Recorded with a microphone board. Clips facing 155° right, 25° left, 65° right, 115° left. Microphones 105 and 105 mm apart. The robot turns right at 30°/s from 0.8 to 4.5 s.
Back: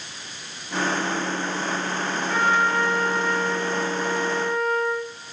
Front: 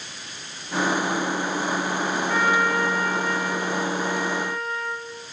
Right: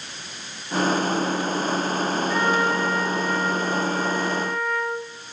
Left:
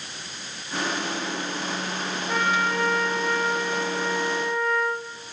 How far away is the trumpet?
About 2.5 m.